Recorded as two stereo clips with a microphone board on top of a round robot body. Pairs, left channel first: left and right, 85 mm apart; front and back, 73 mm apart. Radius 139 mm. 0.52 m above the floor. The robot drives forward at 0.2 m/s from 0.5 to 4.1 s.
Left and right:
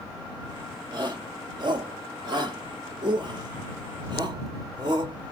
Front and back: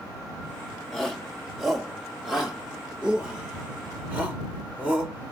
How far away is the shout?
About 1.8 m.